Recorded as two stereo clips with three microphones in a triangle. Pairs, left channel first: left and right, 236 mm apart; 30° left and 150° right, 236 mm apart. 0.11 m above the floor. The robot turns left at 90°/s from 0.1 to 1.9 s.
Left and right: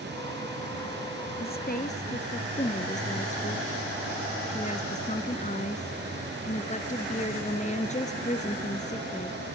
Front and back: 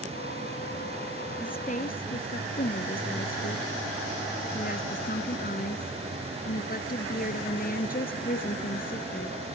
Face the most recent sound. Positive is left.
turn(degrees=50)